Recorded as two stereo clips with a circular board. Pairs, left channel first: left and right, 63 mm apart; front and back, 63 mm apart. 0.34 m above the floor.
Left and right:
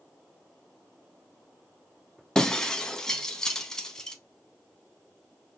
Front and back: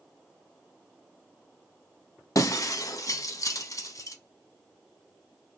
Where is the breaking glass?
10° left, 0.5 m.